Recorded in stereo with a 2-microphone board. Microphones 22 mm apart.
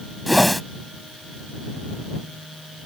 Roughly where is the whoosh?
Centre.